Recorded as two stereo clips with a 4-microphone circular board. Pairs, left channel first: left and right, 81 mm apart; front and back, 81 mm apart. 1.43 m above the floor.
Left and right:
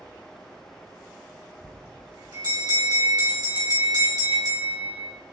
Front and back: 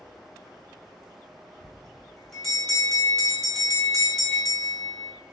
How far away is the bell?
About 1.6 m.